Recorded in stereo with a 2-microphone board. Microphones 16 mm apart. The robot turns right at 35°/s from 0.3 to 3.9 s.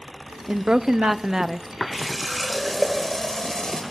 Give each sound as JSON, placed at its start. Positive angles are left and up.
{"t": 0.5, "sound": "a woman speaking", "azimuth_deg": -70, "distance_m": 1.0}
{"t": 1.9, "sound": "a running tap", "azimuth_deg": -15, "distance_m": 5.0}